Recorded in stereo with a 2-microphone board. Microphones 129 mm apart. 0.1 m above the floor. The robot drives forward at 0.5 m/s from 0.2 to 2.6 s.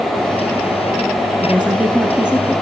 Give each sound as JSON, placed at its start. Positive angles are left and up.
{"t": 1.4, "sound": "a woman speaking", "side_deg": -10, "distance_m": 1.1}